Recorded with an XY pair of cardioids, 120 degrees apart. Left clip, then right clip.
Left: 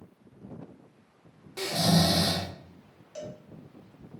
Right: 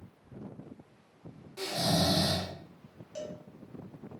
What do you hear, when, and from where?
1.6 s snoring: 50° left, 0.6 m
3.1 s a cowbell: straight ahead, 0.8 m